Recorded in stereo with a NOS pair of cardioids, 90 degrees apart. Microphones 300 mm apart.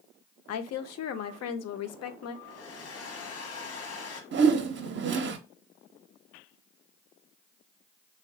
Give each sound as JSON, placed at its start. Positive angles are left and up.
{"t": 0.5, "sound": "a woman speaking", "azimuth_deg": 55, "distance_m": 0.6}
{"t": 2.5, "sound": "a hair dryer", "azimuth_deg": 55, "distance_m": 0.9}
{"t": 4.3, "sound": "a whoosh", "azimuth_deg": -40, "distance_m": 0.6}